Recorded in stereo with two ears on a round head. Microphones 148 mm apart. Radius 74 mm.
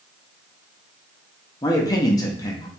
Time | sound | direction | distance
1.6 | a man speaking | 20° left (ahead or behind) | 0.7 m